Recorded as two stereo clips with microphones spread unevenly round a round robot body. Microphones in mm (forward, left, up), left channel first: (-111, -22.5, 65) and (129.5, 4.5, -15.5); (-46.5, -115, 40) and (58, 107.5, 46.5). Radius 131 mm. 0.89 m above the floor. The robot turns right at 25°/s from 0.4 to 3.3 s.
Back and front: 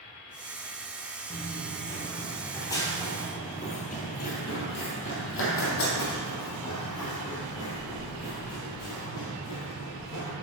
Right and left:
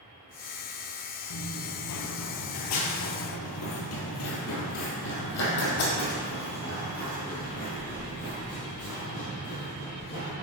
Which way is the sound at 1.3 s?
115° right.